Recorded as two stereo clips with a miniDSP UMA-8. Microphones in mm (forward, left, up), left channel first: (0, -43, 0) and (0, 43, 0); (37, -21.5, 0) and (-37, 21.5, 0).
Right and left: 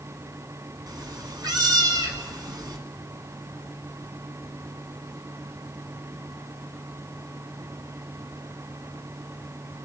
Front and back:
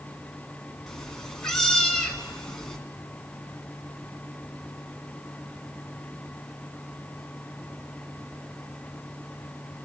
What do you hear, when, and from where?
0.9 s a cat meowing: 55° left, 1.9 m